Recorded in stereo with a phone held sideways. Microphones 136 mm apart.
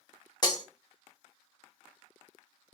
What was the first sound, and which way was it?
Breaking glass, 30° left (ahead or behind).